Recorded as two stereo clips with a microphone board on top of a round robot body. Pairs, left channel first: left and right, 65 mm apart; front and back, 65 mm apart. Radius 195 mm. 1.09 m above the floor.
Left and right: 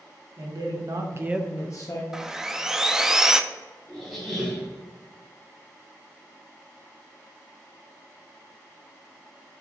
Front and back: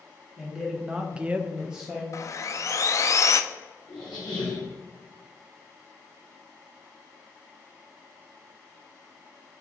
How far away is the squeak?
About 0.7 m.